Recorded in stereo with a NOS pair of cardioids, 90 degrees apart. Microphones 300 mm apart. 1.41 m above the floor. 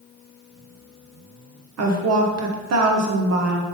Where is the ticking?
No ticking in this recording.